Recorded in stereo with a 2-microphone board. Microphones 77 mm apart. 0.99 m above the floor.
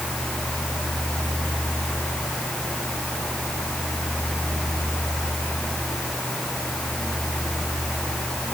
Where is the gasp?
I don't hear a gasp.